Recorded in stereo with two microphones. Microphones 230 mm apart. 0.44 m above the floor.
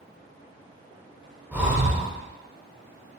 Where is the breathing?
5° right (ahead or behind), 0.9 m.